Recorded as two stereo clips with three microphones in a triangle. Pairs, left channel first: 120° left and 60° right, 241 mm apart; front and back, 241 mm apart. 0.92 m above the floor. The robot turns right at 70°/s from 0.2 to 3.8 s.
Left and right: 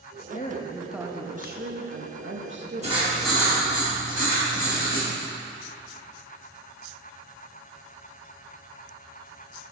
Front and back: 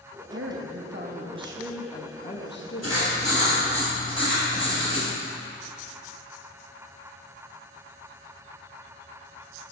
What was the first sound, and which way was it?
A woman speaking, 170° left.